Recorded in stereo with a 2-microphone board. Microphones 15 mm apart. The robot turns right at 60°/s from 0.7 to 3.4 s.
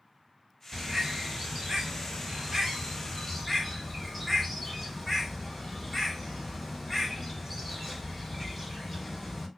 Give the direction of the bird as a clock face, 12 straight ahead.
5 o'clock.